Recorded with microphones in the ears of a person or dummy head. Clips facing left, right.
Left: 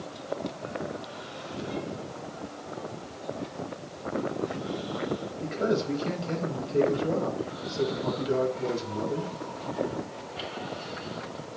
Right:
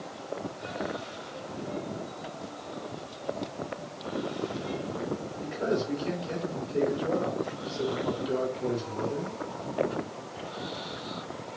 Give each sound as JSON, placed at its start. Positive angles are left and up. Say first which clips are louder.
{"t": 5.4, "sound": "a man speaking", "louder": "left 2 dB", "side_deg": 30, "distance_m": 5.0}